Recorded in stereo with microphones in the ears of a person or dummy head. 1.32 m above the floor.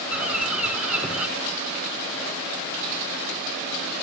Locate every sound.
0.1 s a bird: 10° right (ahead or behind), 1.3 m